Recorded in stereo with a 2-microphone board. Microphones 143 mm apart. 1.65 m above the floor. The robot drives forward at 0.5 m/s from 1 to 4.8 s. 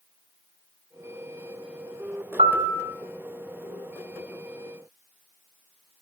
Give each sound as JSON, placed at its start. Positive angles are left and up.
{"t": 2.4, "sound": "a piano", "side_deg": -45, "distance_m": 1.7}